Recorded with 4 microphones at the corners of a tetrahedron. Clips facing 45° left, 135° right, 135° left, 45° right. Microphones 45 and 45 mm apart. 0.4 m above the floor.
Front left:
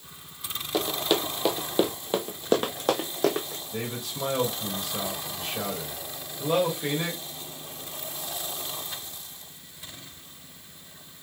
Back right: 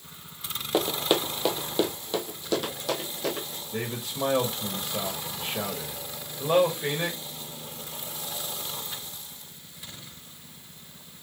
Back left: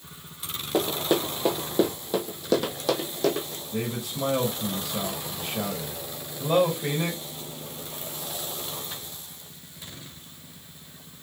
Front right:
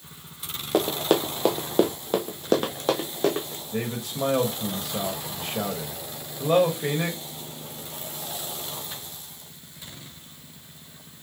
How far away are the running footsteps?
About 0.9 m.